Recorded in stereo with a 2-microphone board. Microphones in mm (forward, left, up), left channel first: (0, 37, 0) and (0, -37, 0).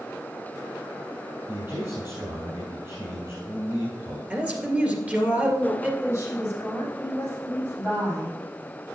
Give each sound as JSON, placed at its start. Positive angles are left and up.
{"t": 1.5, "sound": "a man speaking", "side_deg": -30, "distance_m": 3.0}
{"t": 4.3, "sound": "a man speaking", "side_deg": -20, "distance_m": 2.0}
{"t": 6.0, "sound": "a woman speaking", "side_deg": -35, "distance_m": 4.5}